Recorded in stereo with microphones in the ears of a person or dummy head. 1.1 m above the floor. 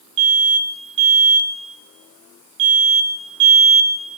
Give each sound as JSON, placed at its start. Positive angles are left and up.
{"t": 0.2, "sound": "an alarm", "side_deg": -65, "distance_m": 4.0}